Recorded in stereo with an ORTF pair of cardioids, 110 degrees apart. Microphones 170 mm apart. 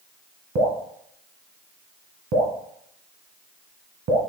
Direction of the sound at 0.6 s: 60° right.